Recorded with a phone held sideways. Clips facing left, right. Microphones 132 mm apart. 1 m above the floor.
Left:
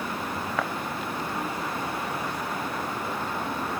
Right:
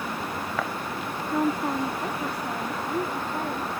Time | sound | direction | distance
1.3 | a woman speaking | 70° right (ahead or behind) | ?